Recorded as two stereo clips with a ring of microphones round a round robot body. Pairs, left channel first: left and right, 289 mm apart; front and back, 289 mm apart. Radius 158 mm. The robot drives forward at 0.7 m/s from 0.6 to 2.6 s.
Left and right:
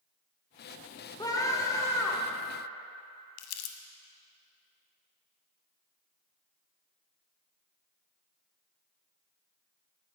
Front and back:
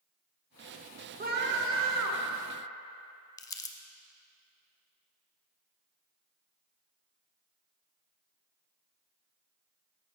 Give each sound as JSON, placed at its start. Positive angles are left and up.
{"t": 1.2, "sound": "a scream", "azimuth_deg": 155, "distance_m": 1.0}
{"t": 3.4, "sound": "crumpling", "azimuth_deg": 80, "distance_m": 0.7}